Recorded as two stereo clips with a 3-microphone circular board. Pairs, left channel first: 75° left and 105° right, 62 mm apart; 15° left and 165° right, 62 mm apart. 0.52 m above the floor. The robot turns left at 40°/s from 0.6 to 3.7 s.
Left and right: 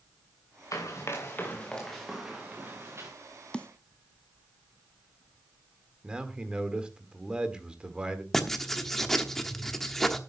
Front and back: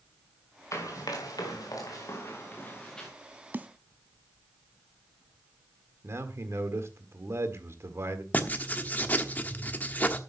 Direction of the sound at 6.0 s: 175° right.